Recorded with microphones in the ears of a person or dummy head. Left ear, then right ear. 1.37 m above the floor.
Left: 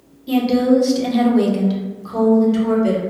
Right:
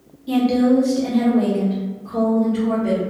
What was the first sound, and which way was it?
A woman speaking, 5° left (ahead or behind).